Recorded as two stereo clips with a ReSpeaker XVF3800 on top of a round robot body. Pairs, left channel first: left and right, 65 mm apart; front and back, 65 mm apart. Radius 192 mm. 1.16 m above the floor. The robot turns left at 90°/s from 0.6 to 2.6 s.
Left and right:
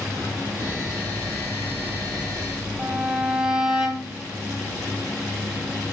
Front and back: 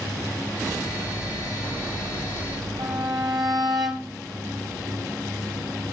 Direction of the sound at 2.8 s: 165° right.